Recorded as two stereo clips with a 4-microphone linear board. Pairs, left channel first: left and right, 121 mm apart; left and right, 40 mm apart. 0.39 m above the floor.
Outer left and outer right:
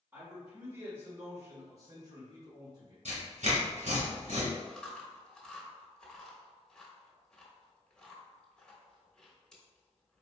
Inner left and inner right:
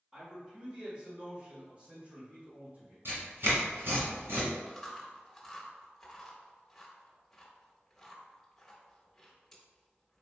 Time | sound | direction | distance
0.1 | a man speaking | 20° right (ahead or behind) | 1.6 m
3.0 | tearing paper | 80° right | 1.9 m
4.7 | chewing | 5° left (ahead or behind) | 1.2 m